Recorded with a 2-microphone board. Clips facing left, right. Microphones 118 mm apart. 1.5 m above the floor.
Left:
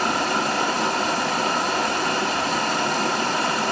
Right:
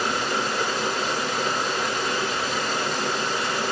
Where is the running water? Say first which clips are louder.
Left 3 dB; 75° left (ahead or behind), 2.5 m.